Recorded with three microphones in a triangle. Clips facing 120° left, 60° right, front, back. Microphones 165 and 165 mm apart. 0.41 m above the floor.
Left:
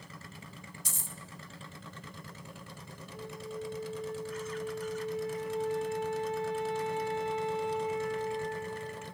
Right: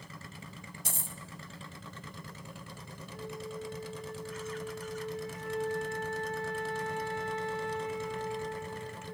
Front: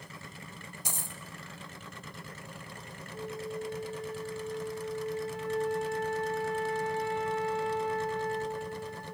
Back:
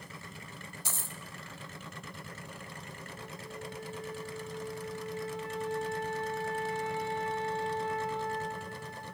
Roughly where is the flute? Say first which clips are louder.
Even, front 10 dB; ahead left.